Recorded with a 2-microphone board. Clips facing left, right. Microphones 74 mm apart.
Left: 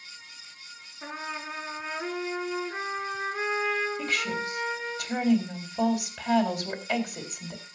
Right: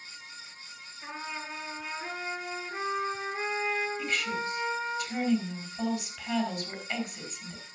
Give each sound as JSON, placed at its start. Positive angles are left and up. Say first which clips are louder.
{"t": 1.0, "sound": "a trumpet", "louder": "left 3 dB", "side_deg": 60, "distance_m": 6.0}
{"t": 4.0, "sound": "a woman speaking", "louder": "left 2 dB", "side_deg": 70, "distance_m": 3.5}